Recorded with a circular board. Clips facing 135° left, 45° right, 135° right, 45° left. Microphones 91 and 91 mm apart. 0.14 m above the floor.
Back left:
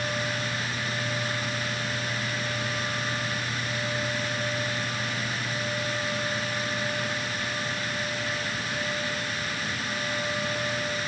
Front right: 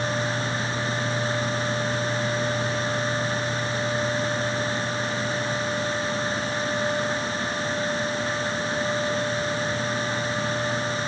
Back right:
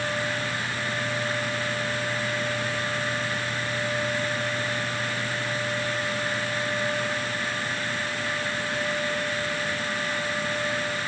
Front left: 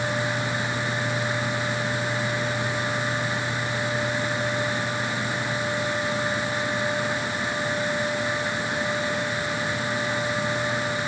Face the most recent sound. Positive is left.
No sound to turn to.